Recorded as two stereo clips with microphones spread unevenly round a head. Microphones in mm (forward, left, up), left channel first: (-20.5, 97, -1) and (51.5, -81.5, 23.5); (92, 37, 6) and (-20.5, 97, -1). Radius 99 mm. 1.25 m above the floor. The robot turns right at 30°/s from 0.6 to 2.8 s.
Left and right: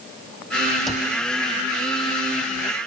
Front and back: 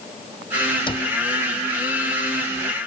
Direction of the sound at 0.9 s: 20° left.